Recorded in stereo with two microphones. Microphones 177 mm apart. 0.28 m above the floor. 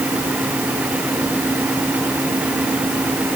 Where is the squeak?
No squeak in this recording.